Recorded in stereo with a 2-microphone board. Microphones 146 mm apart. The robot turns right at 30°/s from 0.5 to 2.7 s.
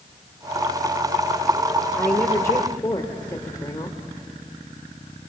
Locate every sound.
2.0 s a woman speaking: 10° left (ahead or behind), 1.4 m; by 4.0 s 25° left (ahead or behind), 1.4 m